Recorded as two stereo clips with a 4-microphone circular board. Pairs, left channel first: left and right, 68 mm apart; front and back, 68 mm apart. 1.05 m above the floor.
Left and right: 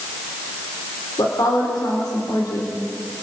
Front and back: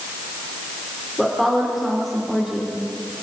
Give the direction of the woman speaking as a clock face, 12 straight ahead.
9 o'clock.